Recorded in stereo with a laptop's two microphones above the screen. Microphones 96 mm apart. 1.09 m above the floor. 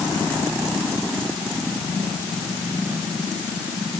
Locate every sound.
Only background noise.